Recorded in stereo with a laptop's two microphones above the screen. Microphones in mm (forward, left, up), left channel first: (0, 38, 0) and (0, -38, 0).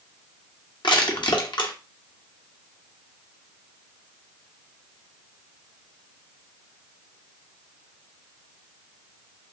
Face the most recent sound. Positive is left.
turn(degrees=70)  # may be behind; listen again after turning